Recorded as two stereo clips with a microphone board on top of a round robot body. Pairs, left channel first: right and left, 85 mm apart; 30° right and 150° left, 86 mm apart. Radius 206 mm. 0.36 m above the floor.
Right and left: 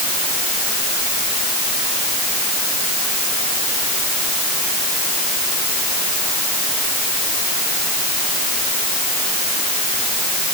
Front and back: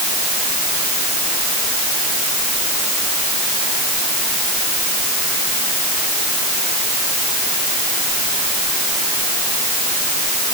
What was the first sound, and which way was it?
Only background noise.